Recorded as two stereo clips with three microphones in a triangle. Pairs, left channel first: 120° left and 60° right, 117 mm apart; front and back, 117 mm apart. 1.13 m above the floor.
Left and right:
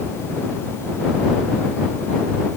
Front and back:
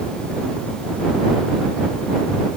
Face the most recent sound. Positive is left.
No sound to turn to.